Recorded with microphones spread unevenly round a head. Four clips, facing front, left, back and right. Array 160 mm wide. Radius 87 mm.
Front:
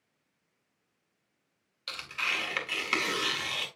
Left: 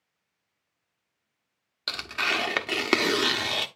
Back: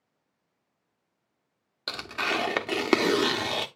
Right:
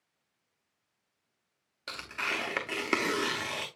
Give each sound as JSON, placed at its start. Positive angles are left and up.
{"t": 1.9, "sound": "tearing paper", "azimuth_deg": 160, "distance_m": 0.8}